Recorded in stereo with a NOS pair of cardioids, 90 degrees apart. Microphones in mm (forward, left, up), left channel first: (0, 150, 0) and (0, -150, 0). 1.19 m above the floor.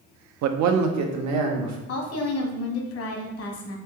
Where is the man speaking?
65° right, 0.5 m.